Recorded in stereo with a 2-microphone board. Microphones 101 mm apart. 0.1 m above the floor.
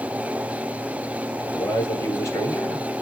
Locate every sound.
1.5 s a man speaking: 40° left (ahead or behind), 1.9 m